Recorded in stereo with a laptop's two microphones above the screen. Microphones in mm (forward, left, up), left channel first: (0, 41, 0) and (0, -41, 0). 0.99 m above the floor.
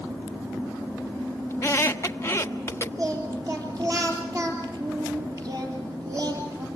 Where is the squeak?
30° left (ahead or behind), 1.3 m.